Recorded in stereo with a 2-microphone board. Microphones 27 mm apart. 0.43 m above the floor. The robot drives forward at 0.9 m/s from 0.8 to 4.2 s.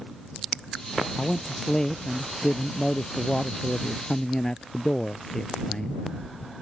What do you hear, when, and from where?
1.1 s a man speaking: 20° left (ahead or behind); by 6.0 s 25° left (ahead or behind)